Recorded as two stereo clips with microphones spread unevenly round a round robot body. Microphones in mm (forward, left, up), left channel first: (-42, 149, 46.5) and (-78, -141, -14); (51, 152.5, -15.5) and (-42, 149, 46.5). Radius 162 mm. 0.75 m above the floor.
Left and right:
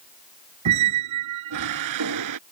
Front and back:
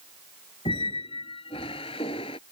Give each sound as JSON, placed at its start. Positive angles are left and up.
{"t": 0.7, "sound": "a squeak", "azimuth_deg": -75}